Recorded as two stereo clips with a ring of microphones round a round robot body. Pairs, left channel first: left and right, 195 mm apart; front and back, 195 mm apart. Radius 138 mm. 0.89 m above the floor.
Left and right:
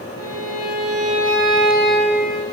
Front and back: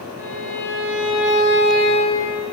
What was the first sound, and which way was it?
A violin, 25° left.